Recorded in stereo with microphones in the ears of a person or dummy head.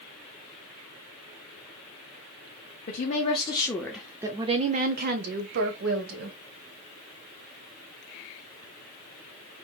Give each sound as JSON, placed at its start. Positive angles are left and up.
{"t": 2.9, "sound": "a woman speaking", "side_deg": 45, "distance_m": 0.9}